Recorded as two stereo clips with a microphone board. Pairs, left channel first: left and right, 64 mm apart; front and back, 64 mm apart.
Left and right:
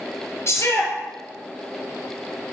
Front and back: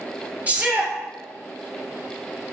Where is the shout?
120° left, 2.5 m.